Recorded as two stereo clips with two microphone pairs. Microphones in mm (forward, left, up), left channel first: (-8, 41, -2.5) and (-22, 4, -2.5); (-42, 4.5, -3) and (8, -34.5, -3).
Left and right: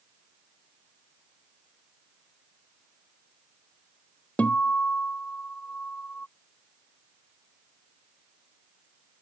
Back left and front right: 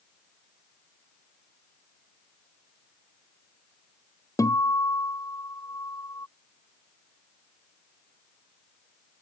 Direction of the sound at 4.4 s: 125° left.